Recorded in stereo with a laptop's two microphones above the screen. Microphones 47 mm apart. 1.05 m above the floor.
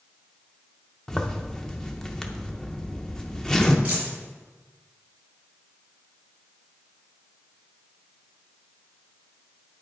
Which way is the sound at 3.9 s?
30° right (ahead or behind).